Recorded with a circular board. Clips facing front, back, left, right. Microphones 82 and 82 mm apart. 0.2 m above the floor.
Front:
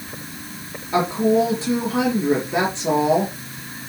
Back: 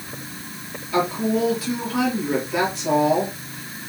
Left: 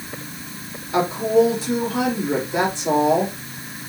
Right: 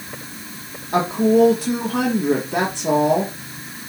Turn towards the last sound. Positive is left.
turn(degrees=-60)